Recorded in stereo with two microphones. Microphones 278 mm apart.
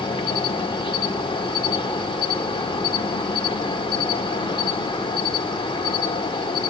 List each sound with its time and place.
0.0 s an insect: 20° left (ahead or behind), 1.3 m